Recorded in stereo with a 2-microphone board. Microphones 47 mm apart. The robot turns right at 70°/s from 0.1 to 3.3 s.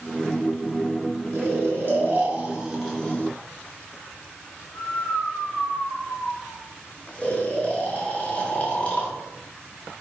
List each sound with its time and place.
1.3 s snoring: 60° right (ahead or behind), 1.8 m; by 9.1 s 30° left (ahead or behind), 1.8 m